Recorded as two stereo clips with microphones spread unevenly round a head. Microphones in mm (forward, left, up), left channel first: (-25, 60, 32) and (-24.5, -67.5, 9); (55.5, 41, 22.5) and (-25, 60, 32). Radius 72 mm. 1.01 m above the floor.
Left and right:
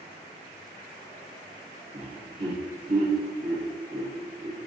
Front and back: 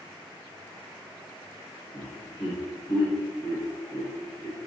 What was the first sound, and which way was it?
Laughter, 45° right.